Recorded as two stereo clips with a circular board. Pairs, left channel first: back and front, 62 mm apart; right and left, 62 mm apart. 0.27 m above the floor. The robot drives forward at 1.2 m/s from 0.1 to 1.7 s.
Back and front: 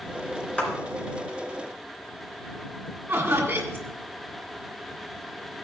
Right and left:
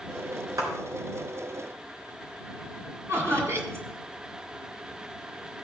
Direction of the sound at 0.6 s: 105° left.